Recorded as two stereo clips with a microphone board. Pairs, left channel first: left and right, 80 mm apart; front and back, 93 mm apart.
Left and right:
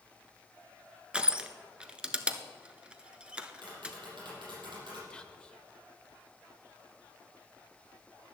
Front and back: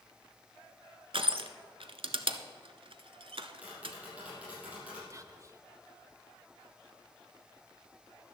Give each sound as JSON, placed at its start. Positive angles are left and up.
{"t": 1.1, "sound": "crushing", "azimuth_deg": -165, "distance_m": 0.9}
{"t": 3.6, "sound": "tapping", "azimuth_deg": -105, "distance_m": 5.5}
{"t": 5.1, "sound": "whispering", "azimuth_deg": 160, "distance_m": 1.0}